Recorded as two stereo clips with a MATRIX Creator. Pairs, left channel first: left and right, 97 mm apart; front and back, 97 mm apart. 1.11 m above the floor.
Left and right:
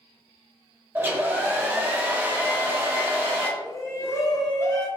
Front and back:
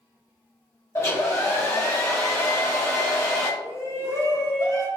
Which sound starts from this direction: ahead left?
A shout, at 3.6 s.